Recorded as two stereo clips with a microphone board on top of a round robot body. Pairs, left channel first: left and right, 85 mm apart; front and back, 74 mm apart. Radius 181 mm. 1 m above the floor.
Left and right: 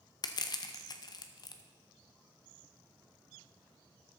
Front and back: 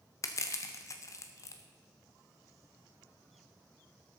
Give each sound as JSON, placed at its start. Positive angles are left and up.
{"t": 0.2, "sound": "crushing", "azimuth_deg": 50, "distance_m": 0.6}